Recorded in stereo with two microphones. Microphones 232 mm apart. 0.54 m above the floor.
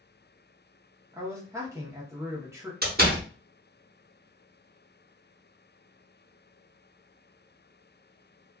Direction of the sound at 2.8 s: 45° right (ahead or behind).